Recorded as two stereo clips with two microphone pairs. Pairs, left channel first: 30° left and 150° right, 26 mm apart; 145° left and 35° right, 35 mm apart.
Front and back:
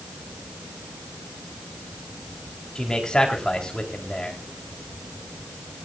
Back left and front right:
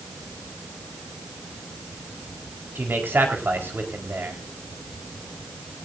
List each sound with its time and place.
2.8 s a man speaking: 35° right, 4.5 m